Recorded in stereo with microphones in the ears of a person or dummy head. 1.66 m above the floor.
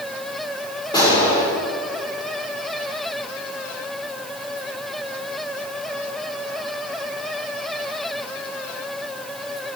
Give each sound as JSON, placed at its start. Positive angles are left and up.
{"t": 0.9, "sound": "a gunshot", "side_deg": 20, "distance_m": 6.5}